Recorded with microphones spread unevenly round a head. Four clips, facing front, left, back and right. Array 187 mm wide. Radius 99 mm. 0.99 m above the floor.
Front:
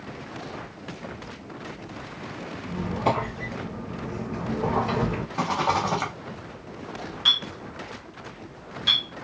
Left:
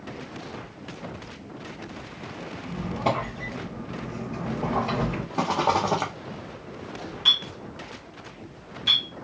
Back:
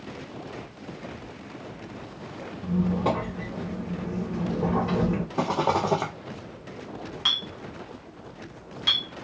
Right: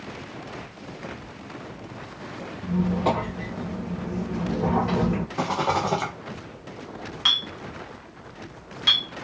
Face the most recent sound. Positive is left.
turn(degrees=-85)